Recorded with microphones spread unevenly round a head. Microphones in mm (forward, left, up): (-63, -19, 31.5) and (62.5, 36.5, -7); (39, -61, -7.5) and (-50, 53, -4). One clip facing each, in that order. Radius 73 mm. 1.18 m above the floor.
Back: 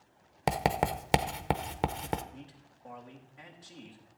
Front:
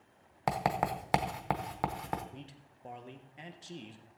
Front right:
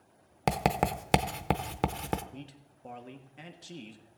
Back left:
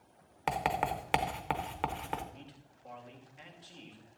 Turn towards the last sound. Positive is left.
turn(degrees=-25)